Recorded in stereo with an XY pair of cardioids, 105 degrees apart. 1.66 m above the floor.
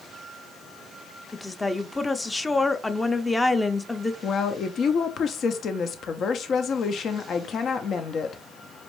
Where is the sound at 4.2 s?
55° left, 0.7 m.